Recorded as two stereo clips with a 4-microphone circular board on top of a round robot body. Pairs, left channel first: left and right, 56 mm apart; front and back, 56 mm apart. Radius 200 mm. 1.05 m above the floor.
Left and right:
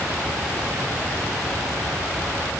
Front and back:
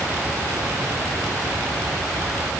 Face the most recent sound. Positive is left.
No sound to turn to.